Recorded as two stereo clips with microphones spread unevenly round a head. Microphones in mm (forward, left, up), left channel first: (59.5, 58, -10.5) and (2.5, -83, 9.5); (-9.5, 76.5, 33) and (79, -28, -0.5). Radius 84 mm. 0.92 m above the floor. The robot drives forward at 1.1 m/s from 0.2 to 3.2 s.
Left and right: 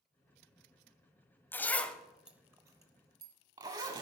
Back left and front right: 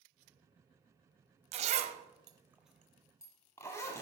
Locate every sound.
1.5 s a zipper: 10° right, 1.1 m; by 4.0 s 170° right, 1.2 m